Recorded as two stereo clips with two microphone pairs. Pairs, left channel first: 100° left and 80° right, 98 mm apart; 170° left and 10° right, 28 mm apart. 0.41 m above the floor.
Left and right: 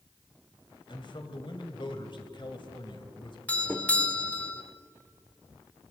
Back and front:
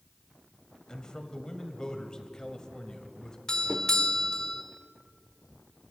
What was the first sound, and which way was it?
A man speaking, 110° left.